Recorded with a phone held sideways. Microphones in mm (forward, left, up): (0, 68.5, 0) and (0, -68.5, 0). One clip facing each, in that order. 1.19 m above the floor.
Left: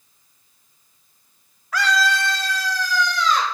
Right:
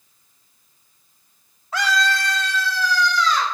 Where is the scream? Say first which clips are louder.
Left 1 dB; 30° right (ahead or behind), 0.6 m; by 3.4 s 50° left (ahead or behind), 2.5 m.